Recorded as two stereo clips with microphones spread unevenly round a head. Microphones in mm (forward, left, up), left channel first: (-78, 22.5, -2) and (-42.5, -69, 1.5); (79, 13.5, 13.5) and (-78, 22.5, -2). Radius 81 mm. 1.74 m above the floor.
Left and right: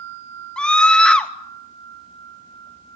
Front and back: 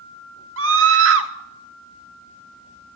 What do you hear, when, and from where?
0.6 s a scream: 170° right, 2.5 m